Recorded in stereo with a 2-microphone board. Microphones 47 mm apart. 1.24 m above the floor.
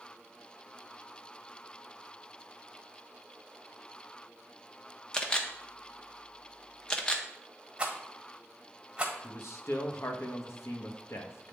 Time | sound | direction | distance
5.1 | a camera shutter | 15° left (ahead or behind) | 0.7 m
7.8 | a rattle | 20° right (ahead or behind) | 1.4 m
9.2 | a man speaking | 75° left (ahead or behind) | 1.0 m